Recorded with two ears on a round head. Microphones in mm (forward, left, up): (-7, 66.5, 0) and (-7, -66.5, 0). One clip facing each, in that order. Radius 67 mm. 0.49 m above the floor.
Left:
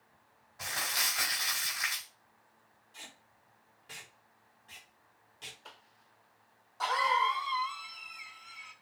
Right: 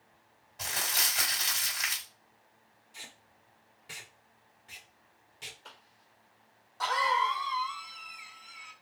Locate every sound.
0.6 s crumpling: 25° right (ahead or behind), 1.9 m
2.9 s tape being pulled: 10° right (ahead or behind), 1.3 m
5.7 s a cough: centre (ahead or behind), 0.7 m